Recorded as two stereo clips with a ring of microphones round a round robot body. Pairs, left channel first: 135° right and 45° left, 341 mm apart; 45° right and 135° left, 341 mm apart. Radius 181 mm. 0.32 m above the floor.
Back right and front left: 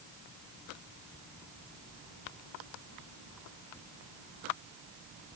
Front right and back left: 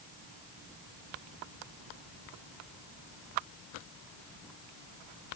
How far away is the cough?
I don't hear a cough.